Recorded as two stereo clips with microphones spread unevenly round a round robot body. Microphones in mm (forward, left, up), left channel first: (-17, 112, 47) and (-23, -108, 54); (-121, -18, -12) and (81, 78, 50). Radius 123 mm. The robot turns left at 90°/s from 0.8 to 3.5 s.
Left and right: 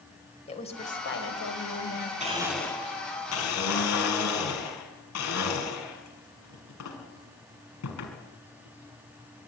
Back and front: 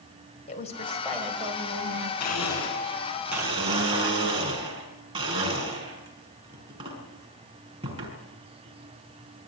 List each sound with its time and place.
0.5 s a woman speaking: 150° left, 4 m; by 2.1 s 30° left, 4 m
2.2 s a blender: 150° right, 5.5 m; by 9.5 s 95° left, 5.5 m